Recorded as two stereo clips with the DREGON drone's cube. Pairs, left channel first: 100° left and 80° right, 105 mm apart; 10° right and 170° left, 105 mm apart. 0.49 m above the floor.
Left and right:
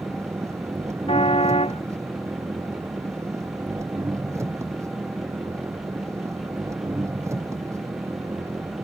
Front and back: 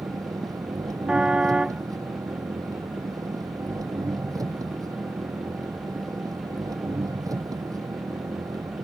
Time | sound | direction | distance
0.0 | an engine running | 140° right | ?
1.1 | a car horn | 90° left | ?